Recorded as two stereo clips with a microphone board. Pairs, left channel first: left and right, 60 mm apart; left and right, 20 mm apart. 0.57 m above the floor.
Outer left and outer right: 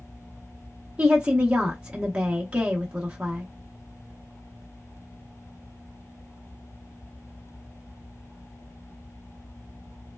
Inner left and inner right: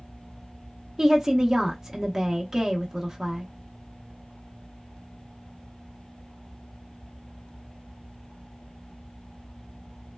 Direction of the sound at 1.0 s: 20° right (ahead or behind).